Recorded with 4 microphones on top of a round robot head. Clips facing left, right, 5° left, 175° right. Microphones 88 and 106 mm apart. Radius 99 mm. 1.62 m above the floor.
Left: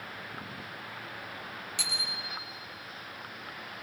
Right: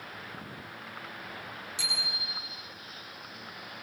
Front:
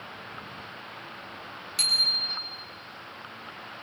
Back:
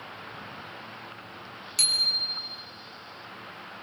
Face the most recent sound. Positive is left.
turn(degrees=135)